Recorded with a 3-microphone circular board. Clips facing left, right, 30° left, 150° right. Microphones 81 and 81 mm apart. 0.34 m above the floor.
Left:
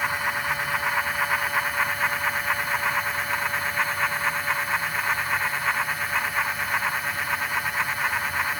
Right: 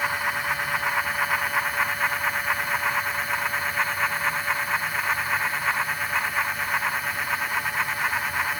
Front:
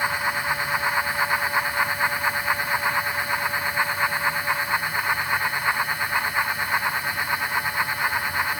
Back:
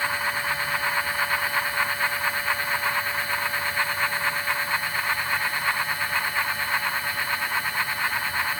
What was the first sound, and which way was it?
Only background noise.